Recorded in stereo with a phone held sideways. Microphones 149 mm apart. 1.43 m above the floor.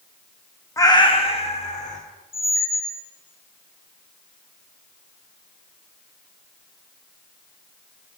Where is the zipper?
I don't hear a zipper.